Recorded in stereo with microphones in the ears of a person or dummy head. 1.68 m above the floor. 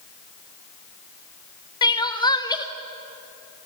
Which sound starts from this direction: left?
Crying, at 1.8 s.